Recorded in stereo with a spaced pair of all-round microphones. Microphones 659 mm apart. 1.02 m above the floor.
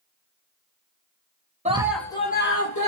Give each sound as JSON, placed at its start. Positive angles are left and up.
{"t": 1.6, "sound": "a scream", "side_deg": -10, "distance_m": 0.9}